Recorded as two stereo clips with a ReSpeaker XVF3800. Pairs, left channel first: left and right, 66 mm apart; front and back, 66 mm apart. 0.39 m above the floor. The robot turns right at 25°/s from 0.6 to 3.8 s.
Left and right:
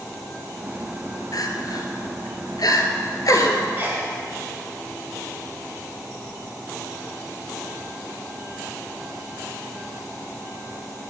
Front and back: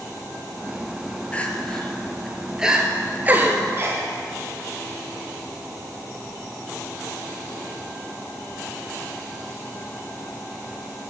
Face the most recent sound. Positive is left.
turn(degrees=-140)